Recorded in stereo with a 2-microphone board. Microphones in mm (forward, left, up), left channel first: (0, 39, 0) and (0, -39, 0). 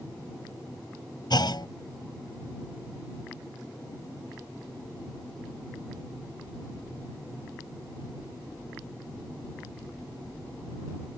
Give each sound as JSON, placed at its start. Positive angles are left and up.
{"t": 1.3, "sound": "a clunk", "side_deg": 65}